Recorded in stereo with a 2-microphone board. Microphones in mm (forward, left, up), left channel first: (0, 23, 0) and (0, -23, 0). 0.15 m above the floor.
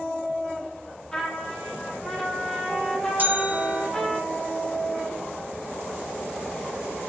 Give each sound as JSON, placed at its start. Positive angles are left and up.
{"t": 1.1, "sound": "a trumpet", "side_deg": 10, "distance_m": 4.0}
{"t": 3.2, "sound": "a bell", "side_deg": -40, "distance_m": 4.0}